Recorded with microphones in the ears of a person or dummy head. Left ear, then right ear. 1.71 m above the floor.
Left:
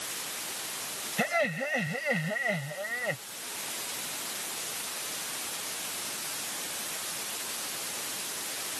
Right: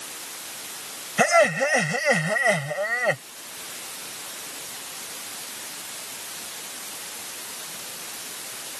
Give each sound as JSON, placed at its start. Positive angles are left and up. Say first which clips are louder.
{"t": 1.2, "sound": "laughter", "louder": "right 11 dB", "side_deg": -40}